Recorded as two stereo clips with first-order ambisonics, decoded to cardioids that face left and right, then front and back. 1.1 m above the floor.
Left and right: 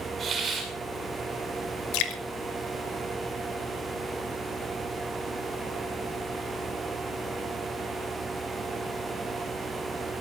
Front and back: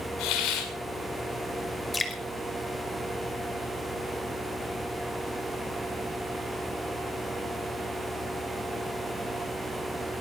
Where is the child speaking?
No child speaking in this recording.